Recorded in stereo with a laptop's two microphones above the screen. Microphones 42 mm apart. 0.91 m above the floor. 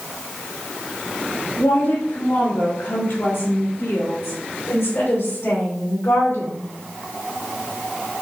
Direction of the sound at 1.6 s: 65° left (ahead or behind).